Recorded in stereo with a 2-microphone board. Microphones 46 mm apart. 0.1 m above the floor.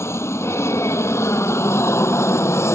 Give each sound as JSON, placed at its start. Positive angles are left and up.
{"t": 0.0, "sound": "an aircraft", "side_deg": 65}